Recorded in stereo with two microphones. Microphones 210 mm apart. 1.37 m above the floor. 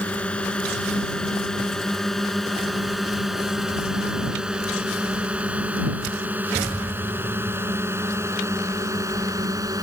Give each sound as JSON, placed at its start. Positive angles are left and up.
{"t": 0.0, "sound": "a drone", "side_deg": 5}